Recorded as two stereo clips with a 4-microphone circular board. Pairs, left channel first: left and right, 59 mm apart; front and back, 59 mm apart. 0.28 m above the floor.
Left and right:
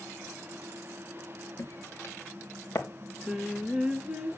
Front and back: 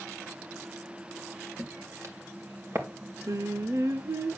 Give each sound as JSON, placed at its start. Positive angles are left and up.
{"t": 1.6, "sound": "footsteps", "azimuth_deg": 130, "distance_m": 3.0}
{"t": 3.3, "sound": "singing", "azimuth_deg": -165, "distance_m": 0.8}